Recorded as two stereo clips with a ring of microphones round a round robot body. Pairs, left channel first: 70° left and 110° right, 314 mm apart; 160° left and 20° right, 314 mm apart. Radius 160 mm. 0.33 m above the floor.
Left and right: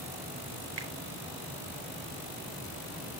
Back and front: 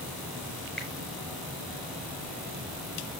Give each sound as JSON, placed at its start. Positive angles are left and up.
{"t": 0.8, "sound": "a finger snap", "azimuth_deg": -115, "distance_m": 3.5}